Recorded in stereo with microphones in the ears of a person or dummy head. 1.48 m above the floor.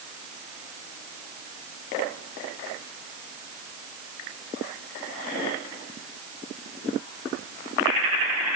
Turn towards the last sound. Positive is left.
No sound to turn to.